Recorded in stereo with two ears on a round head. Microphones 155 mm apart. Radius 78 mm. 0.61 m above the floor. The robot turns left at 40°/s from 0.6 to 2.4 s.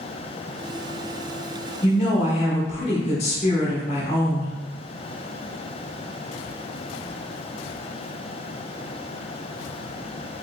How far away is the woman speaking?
About 0.9 m.